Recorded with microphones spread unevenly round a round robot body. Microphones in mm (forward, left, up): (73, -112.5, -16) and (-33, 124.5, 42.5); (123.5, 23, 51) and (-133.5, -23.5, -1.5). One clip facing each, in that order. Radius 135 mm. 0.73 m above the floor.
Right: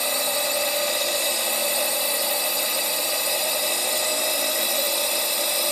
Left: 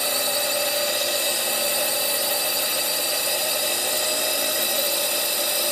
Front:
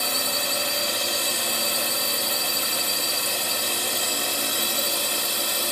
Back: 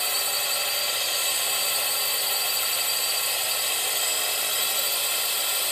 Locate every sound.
0.0 s a drone: 25° left